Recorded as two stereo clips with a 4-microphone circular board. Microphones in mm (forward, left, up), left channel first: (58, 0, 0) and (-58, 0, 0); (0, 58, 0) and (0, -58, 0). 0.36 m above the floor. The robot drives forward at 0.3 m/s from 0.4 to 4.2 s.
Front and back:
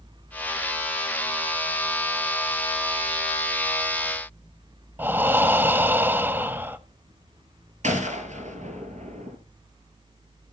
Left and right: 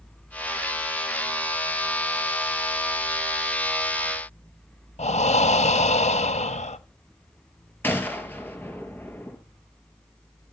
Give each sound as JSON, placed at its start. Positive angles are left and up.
{"t": 5.0, "sound": "breathing", "azimuth_deg": 105, "distance_m": 0.6}
{"t": 7.8, "sound": "a gunshot", "azimuth_deg": 165, "distance_m": 1.9}